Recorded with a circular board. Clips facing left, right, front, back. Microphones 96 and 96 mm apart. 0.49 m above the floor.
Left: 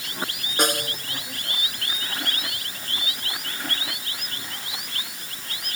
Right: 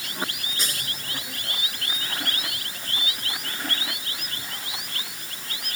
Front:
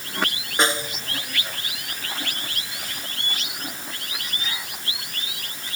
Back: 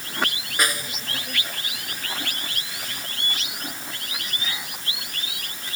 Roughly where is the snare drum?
Ahead left.